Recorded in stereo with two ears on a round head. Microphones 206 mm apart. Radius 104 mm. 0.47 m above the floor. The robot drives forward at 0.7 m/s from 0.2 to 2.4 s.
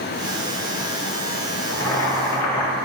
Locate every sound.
1.7 s boiling: 60° left (ahead or behind), 1.9 m; by 2.8 s 75° left (ahead or behind), 1.7 m